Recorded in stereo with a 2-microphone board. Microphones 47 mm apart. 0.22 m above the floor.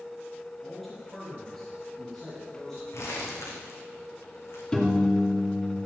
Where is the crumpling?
75° left (ahead or behind), 2.5 m.